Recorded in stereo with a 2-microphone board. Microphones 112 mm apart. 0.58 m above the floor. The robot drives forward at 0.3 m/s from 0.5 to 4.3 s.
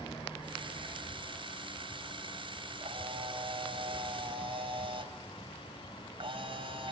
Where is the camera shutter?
60° right (ahead or behind), 3 m; by 6.9 s 55° right (ahead or behind), 3 m.